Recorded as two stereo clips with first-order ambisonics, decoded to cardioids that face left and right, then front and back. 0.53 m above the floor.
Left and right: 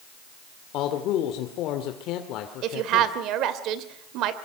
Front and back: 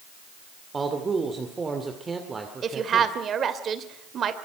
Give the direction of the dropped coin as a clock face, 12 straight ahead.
I don't hear a dropped coin.